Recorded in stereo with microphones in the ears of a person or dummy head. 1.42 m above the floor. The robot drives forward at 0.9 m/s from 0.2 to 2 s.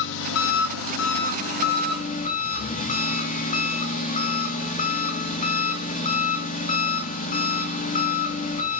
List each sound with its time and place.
0.0 s an engine running: 65° left (ahead or behind), 1.4 m; by 8.8 s 45° left (ahead or behind), 1.8 m